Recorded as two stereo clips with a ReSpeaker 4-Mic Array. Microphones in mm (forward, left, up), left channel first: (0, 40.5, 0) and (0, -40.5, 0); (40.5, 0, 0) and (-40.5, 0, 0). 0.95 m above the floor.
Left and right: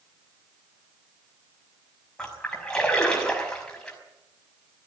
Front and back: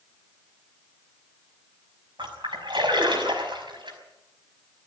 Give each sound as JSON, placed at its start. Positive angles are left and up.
{"t": 2.2, "sound": "a splash", "azimuth_deg": 170, "distance_m": 5.5}